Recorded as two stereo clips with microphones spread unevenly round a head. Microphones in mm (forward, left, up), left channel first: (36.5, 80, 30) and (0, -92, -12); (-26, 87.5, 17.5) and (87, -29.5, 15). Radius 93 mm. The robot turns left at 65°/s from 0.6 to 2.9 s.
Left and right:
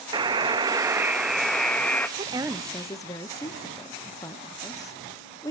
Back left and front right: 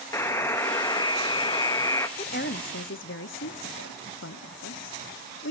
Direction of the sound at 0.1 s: 175° right.